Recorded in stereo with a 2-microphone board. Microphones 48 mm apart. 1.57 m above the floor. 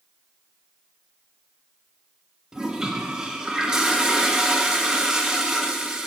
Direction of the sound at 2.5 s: 15° right (ahead or behind).